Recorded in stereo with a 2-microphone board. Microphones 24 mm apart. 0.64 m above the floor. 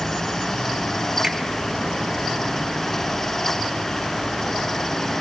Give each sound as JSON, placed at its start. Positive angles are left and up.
{"t": 1.2, "sound": "a finger snap", "side_deg": -25, "distance_m": 2.5}